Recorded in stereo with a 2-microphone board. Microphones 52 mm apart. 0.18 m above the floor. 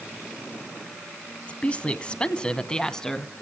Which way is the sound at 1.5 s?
25° left (ahead or behind).